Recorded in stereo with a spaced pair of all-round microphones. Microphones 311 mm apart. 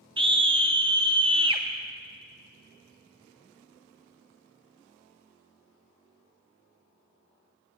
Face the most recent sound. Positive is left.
turn(degrees=-15)  # may be behind; listen again after turning